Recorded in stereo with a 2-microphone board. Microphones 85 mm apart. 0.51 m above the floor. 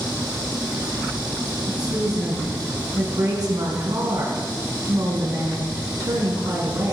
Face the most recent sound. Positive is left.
turn(degrees=-50)  # may be behind; listen again after turning